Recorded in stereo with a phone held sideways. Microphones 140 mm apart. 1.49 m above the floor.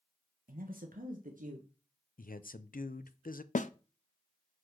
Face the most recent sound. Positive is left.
turn(degrees=65)  # may be behind; listen again after turning